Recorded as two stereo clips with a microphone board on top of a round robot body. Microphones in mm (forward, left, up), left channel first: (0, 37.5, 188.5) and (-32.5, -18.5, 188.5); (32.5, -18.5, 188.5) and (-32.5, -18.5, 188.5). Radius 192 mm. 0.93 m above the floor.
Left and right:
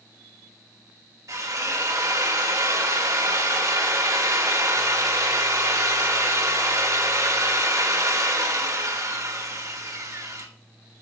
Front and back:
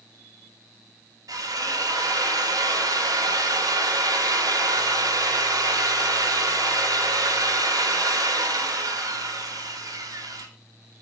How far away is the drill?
About 2 m.